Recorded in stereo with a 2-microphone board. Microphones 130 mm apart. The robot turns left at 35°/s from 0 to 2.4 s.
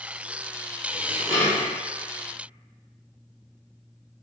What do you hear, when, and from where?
0.9 s dishes clattering: 20° left (ahead or behind), 1.7 m; by 1.7 s 50° left (ahead or behind), 1.7 m